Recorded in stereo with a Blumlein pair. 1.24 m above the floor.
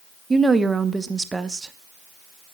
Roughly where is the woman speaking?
Ahead.